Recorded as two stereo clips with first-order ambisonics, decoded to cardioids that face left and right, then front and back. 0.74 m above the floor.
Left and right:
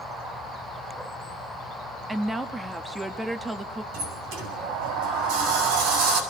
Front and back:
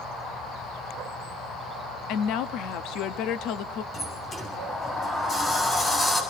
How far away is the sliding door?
About 7 m.